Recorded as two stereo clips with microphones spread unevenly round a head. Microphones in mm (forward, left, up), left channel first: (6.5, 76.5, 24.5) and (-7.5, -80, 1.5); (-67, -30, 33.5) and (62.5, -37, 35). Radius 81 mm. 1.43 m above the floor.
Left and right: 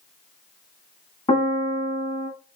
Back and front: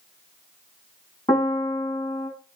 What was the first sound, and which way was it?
A piano, 125° left.